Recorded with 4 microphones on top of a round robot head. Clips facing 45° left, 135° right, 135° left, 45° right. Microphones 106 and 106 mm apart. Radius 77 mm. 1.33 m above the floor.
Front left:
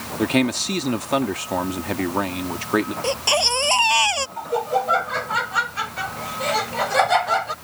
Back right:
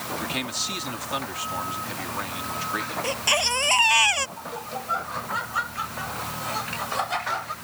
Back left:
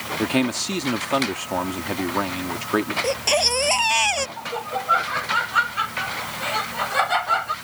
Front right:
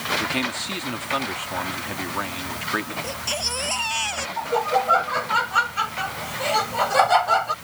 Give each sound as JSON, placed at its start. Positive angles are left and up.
{"t": 0.2, "sound": "a man speaking", "azimuth_deg": 80}
{"t": 3.0, "sound": "a baby crying", "azimuth_deg": 110}
{"t": 4.4, "sound": "laughter", "azimuth_deg": 15}